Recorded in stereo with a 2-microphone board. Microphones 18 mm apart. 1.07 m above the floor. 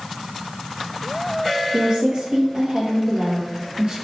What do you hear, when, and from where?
1.7 s a woman speaking: 50° right (ahead or behind), 1.5 m